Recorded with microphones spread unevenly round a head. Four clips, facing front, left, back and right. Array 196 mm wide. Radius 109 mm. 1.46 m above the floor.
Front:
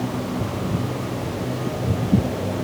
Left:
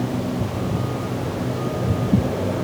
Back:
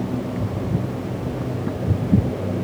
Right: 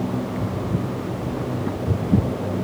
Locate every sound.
Only background noise.